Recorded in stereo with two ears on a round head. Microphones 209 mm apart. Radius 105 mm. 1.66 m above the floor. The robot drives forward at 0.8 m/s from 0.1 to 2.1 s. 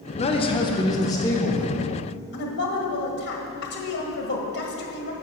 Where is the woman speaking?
50° left (ahead or behind), 1.7 m.